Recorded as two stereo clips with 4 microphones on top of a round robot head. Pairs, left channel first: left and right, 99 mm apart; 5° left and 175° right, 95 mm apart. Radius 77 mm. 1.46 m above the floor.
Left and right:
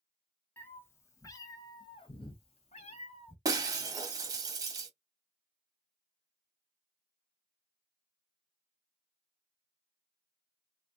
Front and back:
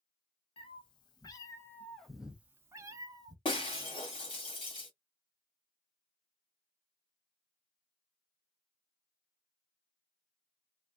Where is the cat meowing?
20° left, 1.2 m; by 3.4 s 145° left, 1.2 m.